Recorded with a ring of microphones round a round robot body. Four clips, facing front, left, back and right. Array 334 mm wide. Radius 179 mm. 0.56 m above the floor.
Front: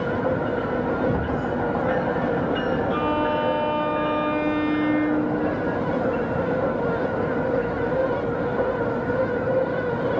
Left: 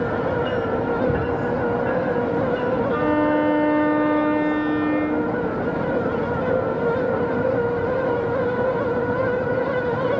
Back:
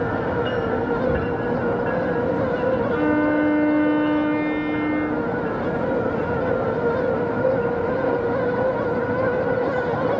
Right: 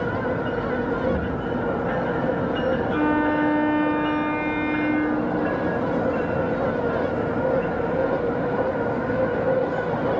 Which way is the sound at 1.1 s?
90° left.